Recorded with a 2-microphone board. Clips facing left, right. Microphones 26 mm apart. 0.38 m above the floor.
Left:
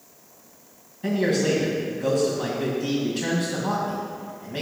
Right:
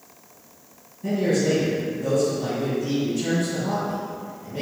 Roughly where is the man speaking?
Left.